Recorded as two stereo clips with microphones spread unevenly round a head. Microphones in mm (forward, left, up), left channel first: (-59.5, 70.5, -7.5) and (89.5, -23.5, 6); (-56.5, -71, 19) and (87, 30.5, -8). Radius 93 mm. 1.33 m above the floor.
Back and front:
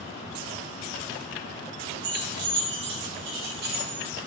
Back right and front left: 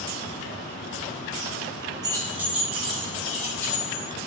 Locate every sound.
2.0 s keys jangling: 35° right, 1.1 m; by 4.0 s 70° right, 2.5 m